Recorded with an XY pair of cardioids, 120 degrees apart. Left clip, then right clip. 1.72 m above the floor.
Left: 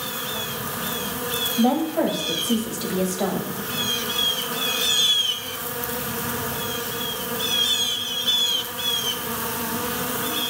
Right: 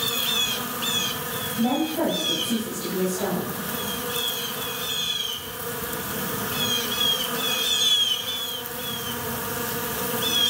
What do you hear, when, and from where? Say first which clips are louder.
1.6 s a woman speaking: left 2 dB; 50° left, 4 m